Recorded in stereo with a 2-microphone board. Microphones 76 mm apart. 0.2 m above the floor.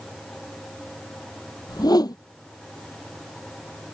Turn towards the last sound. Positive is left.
turn(degrees=60)  # may be behind; listen again after turning